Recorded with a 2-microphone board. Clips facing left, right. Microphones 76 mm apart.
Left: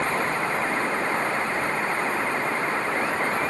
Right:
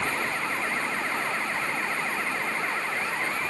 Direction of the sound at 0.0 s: 40° left (ahead or behind).